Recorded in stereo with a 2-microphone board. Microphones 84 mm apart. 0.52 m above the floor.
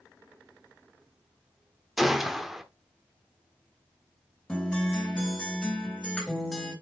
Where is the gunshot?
Centre (ahead or behind), 1.0 m.